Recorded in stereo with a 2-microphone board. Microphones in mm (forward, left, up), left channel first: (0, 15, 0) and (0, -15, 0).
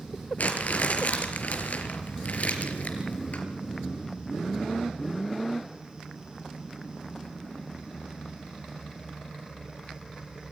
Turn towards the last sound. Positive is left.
turn(degrees=60)  # may be behind; listen again after turning